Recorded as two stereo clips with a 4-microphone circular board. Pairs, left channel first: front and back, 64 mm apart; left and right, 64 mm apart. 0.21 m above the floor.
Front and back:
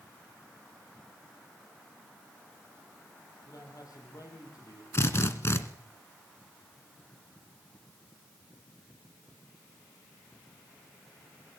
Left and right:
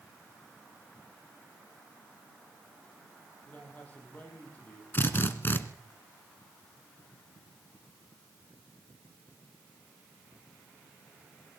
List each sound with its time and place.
3.5 s a man speaking: 25° left, 8.5 m
4.9 s a drill: 40° left, 1.9 m